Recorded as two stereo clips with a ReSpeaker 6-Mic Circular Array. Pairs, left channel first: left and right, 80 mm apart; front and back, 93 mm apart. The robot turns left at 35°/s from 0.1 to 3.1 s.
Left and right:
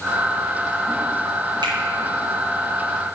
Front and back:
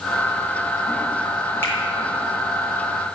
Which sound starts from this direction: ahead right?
A finger snap, at 1.6 s.